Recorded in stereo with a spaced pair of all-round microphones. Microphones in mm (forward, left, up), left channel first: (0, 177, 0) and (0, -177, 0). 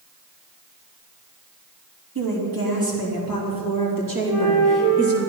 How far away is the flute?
About 5 m.